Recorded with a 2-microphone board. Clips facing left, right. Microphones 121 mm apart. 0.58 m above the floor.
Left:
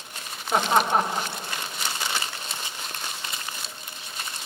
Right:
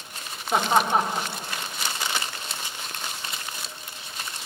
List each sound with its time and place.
0.5 s laughter: centre (ahead or behind), 1.6 m